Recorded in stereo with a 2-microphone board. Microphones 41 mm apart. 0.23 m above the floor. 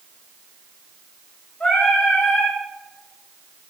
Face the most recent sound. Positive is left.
turn(degrees=30)  # may be behind; listen again after turning